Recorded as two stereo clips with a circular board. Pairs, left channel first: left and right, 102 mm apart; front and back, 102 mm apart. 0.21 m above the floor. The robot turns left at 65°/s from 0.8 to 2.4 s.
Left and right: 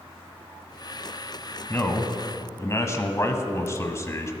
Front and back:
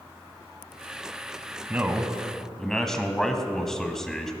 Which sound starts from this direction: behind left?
A man speaking, at 1.7 s.